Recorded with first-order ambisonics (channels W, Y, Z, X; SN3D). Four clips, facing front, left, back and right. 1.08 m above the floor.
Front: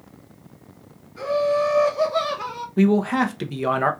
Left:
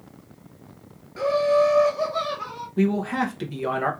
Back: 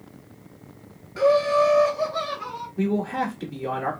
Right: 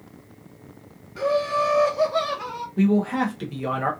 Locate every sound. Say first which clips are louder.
1.2 s laughter: left 3 dB, back 2 dB; 170° left, 0.7 m; by 2.7 s 15° right, 0.8 m
2.8 s a man speaking: right 2 dB, front 6 dB; 5° left, 0.7 m